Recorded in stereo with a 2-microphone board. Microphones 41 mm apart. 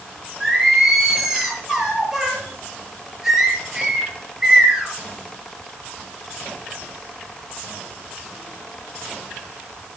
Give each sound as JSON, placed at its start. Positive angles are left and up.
{"t": 0.4, "sound": "singing", "side_deg": -10, "distance_m": 6.0}